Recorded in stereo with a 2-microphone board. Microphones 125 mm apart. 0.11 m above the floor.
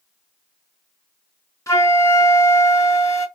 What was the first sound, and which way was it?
A flute, 25° left (ahead or behind).